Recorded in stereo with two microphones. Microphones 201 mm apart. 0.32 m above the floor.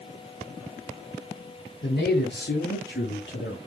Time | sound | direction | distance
1.8 | a man speaking | 50° left (ahead or behind) | 2.5 m